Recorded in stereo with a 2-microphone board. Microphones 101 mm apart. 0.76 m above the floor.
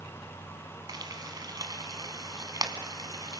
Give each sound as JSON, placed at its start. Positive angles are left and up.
{"t": 0.9, "sound": "frying", "side_deg": -40, "distance_m": 2.0}